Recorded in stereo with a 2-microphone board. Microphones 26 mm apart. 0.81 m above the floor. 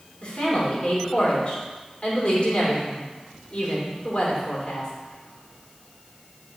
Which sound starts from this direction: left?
A man speaking, at 0.2 s.